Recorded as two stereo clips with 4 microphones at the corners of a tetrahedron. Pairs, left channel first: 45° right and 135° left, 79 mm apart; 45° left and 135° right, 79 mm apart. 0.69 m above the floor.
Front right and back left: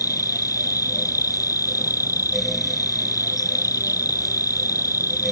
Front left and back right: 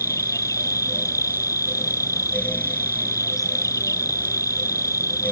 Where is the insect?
Straight ahead.